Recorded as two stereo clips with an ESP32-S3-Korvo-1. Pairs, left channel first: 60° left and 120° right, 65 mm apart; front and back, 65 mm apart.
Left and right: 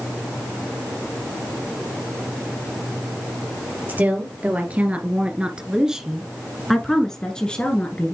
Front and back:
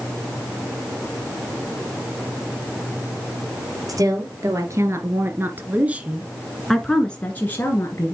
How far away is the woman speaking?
About 2.5 m.